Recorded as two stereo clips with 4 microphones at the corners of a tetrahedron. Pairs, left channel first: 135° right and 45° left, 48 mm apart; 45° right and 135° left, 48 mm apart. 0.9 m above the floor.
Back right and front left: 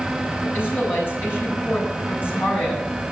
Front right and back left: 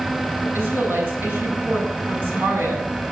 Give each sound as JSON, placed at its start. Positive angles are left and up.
{"t": 0.4, "sound": "a woman speaking", "azimuth_deg": 180, "distance_m": 8.5}